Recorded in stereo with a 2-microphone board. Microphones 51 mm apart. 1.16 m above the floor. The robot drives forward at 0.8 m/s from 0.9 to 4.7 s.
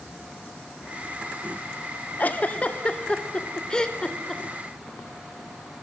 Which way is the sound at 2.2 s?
35° left (ahead or behind).